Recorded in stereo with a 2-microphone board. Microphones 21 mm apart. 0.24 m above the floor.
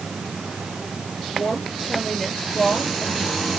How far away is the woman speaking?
About 4.5 m.